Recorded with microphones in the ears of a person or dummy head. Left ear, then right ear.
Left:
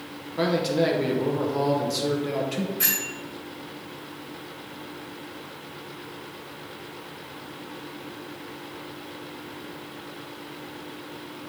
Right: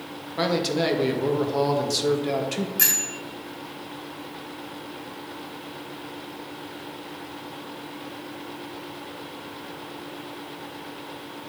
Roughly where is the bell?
Right.